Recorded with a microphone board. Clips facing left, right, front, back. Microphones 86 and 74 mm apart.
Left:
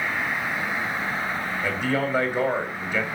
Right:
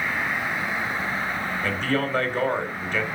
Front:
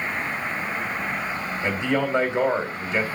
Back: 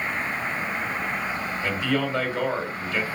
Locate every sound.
1.6 s a man speaking: 25° left, 1.5 m